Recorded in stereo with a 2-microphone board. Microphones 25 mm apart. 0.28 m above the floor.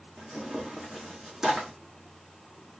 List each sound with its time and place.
0.2 s tearing paper: 20° right (ahead or behind), 2 m